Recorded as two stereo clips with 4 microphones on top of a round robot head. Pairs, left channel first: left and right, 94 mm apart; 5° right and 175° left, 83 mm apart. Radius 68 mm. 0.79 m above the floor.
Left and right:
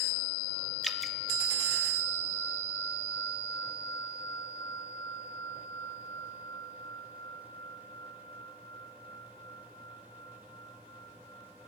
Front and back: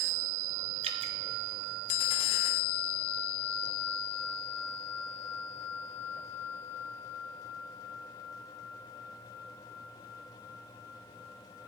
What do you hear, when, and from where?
0.8 s dripping: straight behind, 0.5 m